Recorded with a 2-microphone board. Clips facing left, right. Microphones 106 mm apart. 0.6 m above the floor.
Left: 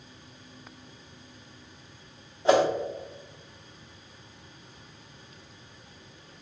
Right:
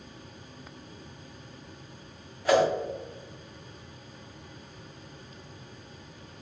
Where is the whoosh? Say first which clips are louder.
Left 1 dB; 25° left (ahead or behind), 0.6 m.